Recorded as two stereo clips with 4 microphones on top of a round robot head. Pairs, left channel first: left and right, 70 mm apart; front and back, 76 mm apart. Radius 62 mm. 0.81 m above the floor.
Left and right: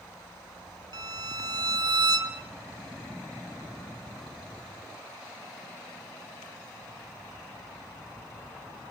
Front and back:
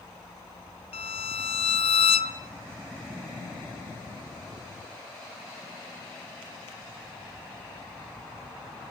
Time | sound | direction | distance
0.9 | a violin | 30° right | 1.1 m